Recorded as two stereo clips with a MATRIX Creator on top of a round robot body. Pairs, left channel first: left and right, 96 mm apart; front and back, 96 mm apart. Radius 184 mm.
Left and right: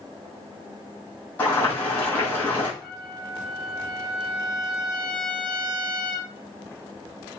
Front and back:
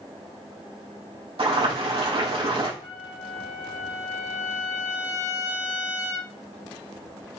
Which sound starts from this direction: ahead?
A trumpet, at 2.8 s.